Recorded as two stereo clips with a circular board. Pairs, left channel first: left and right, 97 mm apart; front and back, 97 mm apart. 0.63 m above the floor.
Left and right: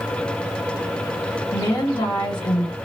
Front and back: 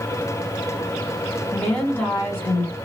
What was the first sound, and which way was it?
A woman speaking, 70° left.